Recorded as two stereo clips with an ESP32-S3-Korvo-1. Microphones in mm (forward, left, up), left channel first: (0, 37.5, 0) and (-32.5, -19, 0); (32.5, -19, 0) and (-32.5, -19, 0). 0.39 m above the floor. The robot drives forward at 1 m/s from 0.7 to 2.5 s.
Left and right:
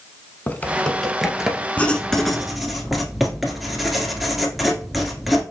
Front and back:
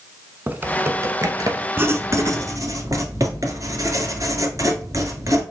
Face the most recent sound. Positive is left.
turn(degrees=155)